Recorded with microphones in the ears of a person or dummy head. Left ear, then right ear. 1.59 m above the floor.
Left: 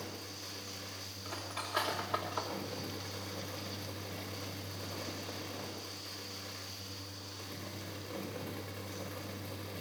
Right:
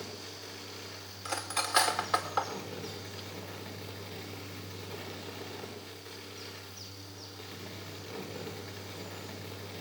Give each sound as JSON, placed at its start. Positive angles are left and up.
{"t": 0.0, "sound": "a fan", "side_deg": -10, "distance_m": 6.5}
{"t": 1.2, "sound": "cutlery clinking", "side_deg": -70, "distance_m": 2.5}